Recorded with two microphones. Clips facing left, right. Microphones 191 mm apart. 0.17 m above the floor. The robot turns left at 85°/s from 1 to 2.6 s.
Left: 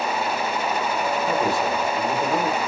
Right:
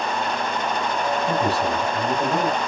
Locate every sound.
1.3 s a man speaking: 20° right, 2.5 m; by 2.6 s 130° right, 2.5 m